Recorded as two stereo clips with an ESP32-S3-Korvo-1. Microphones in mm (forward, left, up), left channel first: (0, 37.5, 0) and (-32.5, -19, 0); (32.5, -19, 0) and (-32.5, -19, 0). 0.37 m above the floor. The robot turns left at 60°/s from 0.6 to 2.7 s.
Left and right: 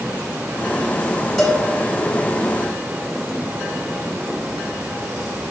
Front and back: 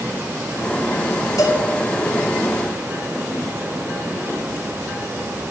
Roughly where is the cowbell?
Ahead right.